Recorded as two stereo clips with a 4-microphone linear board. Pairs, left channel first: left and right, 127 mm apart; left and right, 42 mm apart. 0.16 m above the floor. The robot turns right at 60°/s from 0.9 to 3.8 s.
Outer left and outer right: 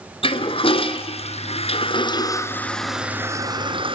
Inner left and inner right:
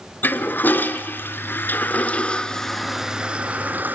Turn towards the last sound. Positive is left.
turn(degrees=-45)  # may be behind; listen again after turning